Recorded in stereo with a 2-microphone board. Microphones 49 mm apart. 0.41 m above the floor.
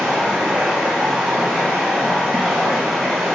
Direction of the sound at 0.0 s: 10° right (ahead or behind).